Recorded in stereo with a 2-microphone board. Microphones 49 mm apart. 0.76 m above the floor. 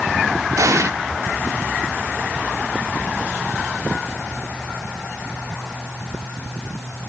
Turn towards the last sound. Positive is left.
turn(degrees=-85)